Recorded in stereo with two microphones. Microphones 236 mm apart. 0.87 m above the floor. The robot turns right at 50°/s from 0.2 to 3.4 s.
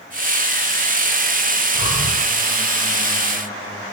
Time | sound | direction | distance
1.8 | breathing | 70° left (ahead or behind) | 1.1 m